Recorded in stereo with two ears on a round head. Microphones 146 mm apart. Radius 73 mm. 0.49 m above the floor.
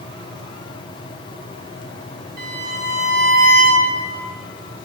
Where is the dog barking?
I don't hear a dog barking.